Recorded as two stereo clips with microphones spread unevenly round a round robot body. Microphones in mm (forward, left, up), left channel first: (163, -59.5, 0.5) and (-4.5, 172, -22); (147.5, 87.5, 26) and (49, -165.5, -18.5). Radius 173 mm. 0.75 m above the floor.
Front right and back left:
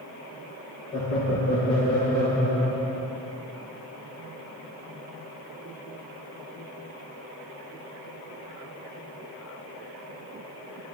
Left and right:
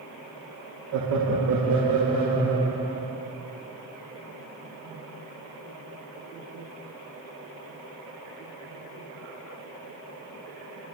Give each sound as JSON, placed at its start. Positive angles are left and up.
{"t": 0.9, "sound": "laughter", "azimuth_deg": -120, "distance_m": 1.2}